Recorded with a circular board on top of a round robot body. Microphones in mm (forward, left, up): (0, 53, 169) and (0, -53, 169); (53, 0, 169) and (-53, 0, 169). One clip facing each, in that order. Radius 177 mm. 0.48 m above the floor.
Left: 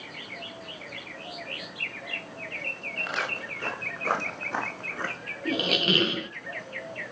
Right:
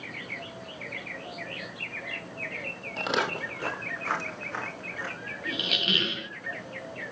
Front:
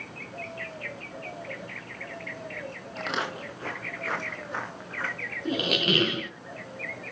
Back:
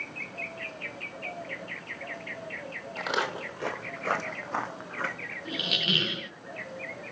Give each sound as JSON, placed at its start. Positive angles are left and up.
{"t": 3.0, "sound": "footsteps", "azimuth_deg": -95, "distance_m": 0.9}
{"t": 5.5, "sound": "a squeak", "azimuth_deg": 45, "distance_m": 0.7}